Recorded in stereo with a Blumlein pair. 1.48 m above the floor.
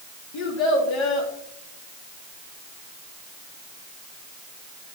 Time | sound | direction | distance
0.3 | a child speaking | 50° left | 2 m